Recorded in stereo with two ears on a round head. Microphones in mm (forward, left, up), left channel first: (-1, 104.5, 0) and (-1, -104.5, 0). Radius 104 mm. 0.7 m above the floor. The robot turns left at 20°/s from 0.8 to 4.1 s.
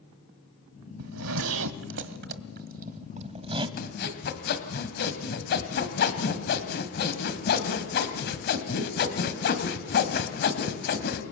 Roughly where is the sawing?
Left.